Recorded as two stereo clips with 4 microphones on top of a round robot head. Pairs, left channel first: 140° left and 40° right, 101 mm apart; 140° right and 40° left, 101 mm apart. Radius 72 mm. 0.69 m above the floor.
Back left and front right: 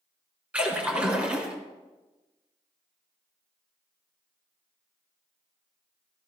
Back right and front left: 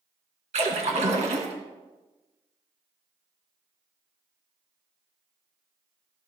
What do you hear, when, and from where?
0.5 s a splash: 35° left, 2 m